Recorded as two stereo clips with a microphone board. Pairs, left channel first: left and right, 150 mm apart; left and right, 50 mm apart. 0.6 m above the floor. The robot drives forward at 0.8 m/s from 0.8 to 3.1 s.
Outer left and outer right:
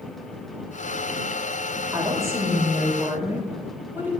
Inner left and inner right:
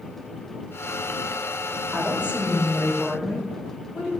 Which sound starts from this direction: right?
A woman speaking, at 1.9 s.